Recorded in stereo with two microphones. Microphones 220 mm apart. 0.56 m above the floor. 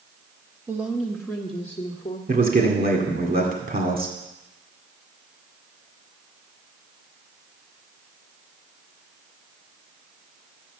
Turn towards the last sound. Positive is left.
turn(degrees=-40)  # may be behind; listen again after turning